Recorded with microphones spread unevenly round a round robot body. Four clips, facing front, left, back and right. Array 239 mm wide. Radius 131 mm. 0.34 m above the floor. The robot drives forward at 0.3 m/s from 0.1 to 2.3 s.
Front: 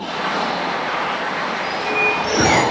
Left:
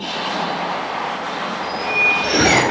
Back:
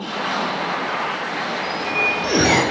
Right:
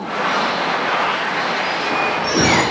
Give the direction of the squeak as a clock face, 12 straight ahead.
6 o'clock.